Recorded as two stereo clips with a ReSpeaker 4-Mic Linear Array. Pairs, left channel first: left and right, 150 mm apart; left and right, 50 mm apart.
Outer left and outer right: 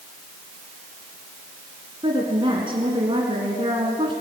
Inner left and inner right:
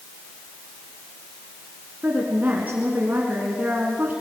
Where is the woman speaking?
35° right (ahead or behind), 2 m.